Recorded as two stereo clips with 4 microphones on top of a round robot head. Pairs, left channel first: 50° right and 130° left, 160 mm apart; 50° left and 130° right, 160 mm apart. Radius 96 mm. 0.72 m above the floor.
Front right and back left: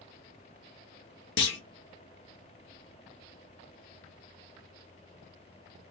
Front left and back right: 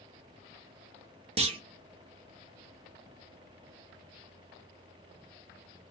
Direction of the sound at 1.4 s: 70° right.